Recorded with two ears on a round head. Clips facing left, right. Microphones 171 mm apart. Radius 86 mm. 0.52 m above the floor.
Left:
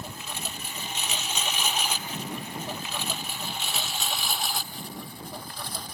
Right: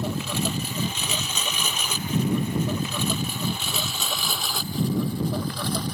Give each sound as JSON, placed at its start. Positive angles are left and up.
{"t": 0.0, "sound": "a lawn mower", "side_deg": -55}